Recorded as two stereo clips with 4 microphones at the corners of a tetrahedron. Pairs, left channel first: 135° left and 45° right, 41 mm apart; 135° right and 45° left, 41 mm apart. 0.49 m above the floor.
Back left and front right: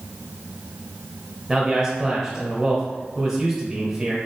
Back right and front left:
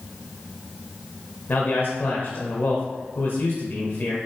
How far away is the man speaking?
About 1.5 m.